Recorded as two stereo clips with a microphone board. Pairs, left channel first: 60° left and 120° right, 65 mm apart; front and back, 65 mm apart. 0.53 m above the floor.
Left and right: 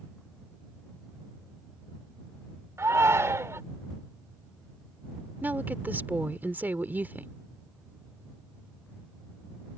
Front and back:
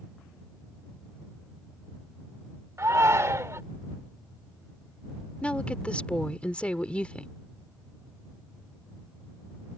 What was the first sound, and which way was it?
A shout, 155° right.